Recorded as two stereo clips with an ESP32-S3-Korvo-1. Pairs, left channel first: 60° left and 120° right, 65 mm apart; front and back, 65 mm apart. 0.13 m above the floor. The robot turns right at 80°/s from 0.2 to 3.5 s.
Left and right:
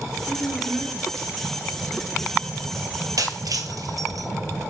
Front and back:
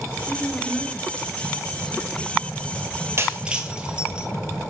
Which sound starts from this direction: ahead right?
A woman speaking, at 0.3 s.